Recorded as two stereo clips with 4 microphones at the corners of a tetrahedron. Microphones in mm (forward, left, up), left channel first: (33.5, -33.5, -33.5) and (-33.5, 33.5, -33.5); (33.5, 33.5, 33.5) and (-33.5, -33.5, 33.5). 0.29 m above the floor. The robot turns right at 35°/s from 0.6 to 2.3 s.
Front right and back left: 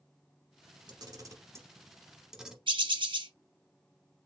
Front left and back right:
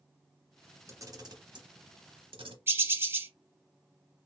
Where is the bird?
160° left, 0.6 m.